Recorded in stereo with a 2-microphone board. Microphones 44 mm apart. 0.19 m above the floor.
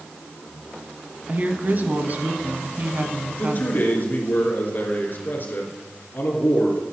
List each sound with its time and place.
1.3 s a woman speaking: 40° right (ahead or behind), 1.3 m
3.3 s a man speaking: 45° left (ahead or behind), 3.5 m